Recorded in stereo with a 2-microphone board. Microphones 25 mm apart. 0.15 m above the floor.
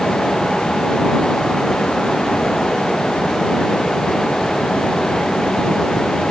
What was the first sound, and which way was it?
Only background noise.